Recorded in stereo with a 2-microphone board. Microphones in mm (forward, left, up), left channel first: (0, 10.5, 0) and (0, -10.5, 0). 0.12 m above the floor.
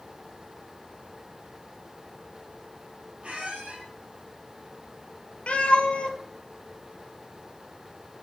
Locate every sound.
3.2 s a squeak: 65° right (ahead or behind), 2.5 m
5.5 s a cat meowing: 65° left (ahead or behind), 1.3 m